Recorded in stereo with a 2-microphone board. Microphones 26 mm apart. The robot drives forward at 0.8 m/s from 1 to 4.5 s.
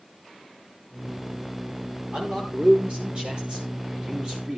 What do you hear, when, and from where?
2.1 s a man speaking: 50° right (ahead or behind), 10 m; by 4.6 s 40° right (ahead or behind), 11 m